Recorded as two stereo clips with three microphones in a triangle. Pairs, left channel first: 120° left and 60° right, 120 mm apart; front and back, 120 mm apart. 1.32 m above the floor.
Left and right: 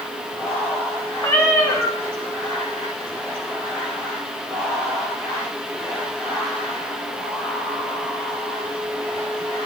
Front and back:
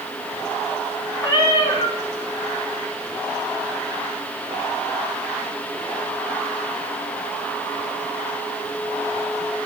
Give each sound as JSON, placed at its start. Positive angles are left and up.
{"t": 1.2, "sound": "a cat meowing", "azimuth_deg": 55, "distance_m": 2.5}